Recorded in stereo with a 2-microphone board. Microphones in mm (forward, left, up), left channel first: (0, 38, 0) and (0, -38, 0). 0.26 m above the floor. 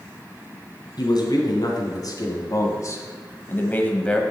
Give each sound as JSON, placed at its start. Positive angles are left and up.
{"t": 1.0, "sound": "a man speaking", "side_deg": 65, "distance_m": 2.5}